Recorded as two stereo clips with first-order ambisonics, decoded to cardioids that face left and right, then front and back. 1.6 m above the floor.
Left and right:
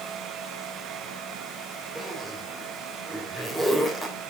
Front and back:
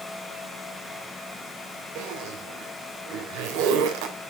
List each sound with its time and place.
1.9 s a zipper: straight behind, 3 m